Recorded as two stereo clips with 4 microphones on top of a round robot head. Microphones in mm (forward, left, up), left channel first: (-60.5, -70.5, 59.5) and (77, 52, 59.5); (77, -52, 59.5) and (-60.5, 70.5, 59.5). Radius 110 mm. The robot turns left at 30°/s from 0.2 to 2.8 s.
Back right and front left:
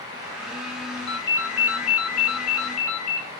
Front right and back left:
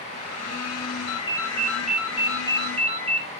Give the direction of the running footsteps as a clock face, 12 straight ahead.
No running footsteps in this recording.